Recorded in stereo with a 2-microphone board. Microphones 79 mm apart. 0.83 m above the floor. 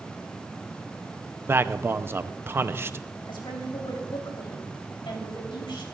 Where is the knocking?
I don't hear knocking.